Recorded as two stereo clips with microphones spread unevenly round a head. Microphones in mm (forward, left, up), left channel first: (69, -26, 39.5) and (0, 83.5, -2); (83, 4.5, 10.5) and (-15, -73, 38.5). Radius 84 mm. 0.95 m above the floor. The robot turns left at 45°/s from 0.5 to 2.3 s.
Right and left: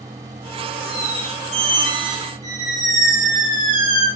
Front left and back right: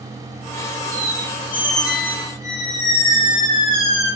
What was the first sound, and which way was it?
A squeak, 155° left.